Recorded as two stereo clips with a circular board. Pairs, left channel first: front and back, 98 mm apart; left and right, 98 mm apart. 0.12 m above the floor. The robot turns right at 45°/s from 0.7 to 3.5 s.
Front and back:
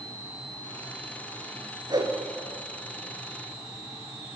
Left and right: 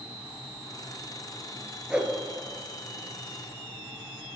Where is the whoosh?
170° right, 1.1 m; by 2.1 s 160° right, 1.1 m.